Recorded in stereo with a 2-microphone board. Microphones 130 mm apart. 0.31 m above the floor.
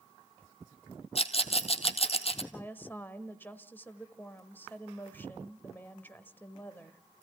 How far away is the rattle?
About 1.5 m.